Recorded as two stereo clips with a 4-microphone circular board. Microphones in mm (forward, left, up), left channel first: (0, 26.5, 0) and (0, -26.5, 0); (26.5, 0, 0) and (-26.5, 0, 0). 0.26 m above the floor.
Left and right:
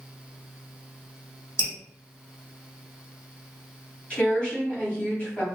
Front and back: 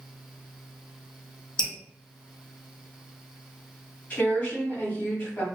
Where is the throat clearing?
I don't hear throat clearing.